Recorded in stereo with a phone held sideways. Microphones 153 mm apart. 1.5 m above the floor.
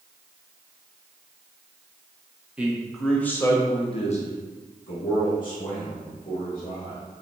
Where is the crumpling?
No crumpling in this recording.